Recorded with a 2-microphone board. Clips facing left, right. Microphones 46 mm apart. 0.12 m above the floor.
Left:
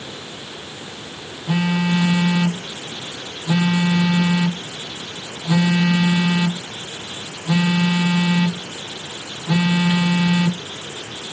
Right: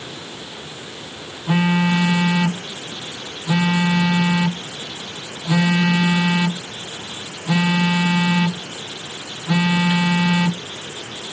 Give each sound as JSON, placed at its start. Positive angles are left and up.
{"t": 1.5, "sound": "a phone buzzing", "side_deg": -15}